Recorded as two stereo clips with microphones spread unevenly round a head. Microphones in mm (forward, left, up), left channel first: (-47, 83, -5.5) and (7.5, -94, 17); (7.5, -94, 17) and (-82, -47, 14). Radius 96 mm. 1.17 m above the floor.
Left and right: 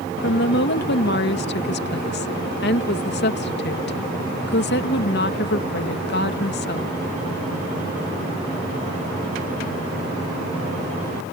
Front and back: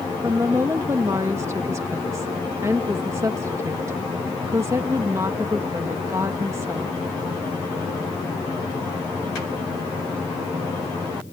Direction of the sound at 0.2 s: 80° left.